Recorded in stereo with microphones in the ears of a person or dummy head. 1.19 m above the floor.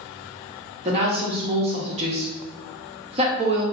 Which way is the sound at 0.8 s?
35° right (ahead or behind).